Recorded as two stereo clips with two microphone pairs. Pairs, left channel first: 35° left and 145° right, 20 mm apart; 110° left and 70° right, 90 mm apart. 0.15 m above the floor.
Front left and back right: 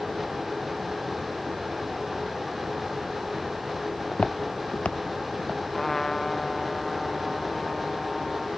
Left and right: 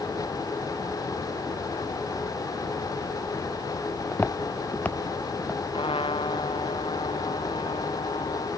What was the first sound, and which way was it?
Footsteps, 45° left.